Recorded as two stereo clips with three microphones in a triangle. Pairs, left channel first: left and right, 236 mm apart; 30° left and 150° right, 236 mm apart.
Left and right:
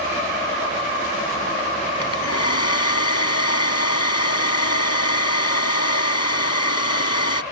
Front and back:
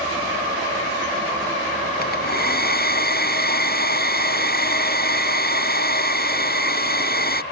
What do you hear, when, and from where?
2.0 s a hair dryer: 80° left